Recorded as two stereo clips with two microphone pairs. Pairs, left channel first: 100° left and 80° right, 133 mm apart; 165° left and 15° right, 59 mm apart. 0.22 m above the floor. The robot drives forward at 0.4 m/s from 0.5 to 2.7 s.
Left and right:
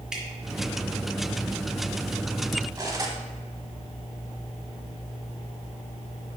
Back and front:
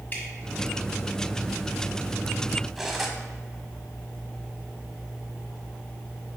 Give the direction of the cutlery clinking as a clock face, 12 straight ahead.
3 o'clock.